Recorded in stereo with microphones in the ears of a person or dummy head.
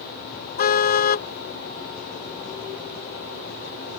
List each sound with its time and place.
0.6 s a car horn: 50° left (ahead or behind)